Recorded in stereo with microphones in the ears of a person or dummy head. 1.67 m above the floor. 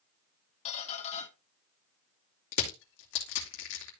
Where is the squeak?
35° left (ahead or behind), 1.5 m.